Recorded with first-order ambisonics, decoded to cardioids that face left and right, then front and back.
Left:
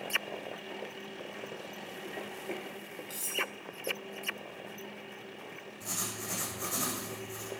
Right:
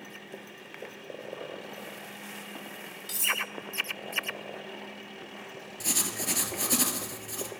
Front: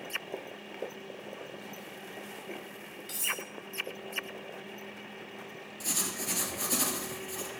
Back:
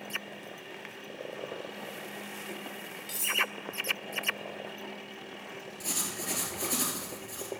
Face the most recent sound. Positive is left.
turn(degrees=-90)